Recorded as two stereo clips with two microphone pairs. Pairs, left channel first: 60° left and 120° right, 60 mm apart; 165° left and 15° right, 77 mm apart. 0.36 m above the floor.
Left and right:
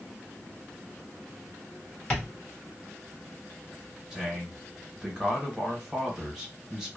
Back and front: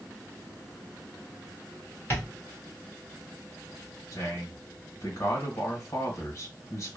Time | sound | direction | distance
2.1 | tapping | 125° left | 1.6 m
4.1 | a man speaking | 160° left | 1.3 m